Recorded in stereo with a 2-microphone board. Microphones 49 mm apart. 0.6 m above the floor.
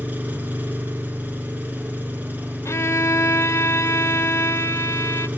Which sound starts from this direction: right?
An engine running, at 0.0 s.